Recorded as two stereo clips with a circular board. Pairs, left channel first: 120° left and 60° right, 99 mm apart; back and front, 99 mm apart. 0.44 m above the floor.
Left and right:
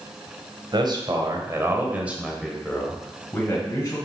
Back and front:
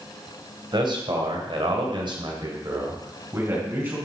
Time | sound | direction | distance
0.7 | a man speaking | 30° right | 2.5 m